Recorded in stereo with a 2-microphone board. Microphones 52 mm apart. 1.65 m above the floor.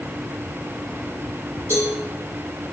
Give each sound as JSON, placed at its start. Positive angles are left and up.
{"t": 1.7, "sound": "a cowbell", "side_deg": 55, "distance_m": 4.5}